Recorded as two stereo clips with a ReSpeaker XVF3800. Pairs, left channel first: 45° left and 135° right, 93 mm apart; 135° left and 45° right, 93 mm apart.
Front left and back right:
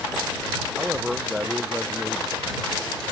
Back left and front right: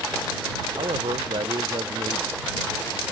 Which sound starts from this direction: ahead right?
A man speaking, at 0.8 s.